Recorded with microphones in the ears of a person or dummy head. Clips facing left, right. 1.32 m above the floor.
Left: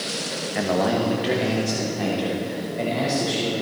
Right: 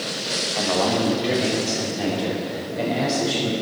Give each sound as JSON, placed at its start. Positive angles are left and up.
{"t": 0.6, "sound": "a man speaking", "side_deg": 20, "distance_m": 1.0}